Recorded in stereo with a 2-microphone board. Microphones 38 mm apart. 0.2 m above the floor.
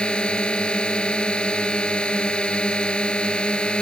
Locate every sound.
0.0 s a drone: 25° left (ahead or behind)